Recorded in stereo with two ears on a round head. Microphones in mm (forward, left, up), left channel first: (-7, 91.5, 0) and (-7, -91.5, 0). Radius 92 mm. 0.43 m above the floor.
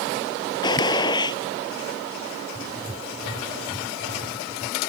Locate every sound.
0.6 s a gunshot: 20° left (ahead or behind)
2.5 s writing: 30° right (ahead or behind)